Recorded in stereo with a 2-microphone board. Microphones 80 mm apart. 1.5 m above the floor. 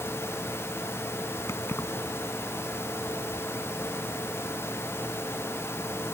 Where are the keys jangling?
35° left (ahead or behind).